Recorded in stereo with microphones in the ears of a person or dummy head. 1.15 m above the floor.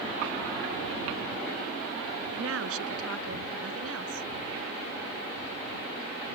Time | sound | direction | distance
2.3 | a woman speaking | 85° right | ?